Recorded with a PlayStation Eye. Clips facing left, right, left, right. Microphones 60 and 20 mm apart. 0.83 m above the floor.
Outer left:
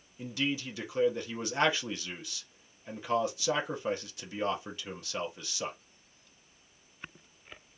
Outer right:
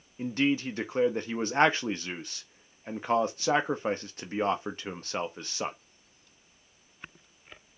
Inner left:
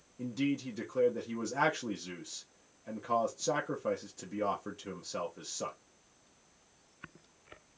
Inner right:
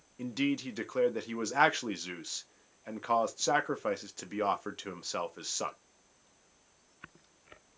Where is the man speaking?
40° right (ahead or behind), 0.8 m.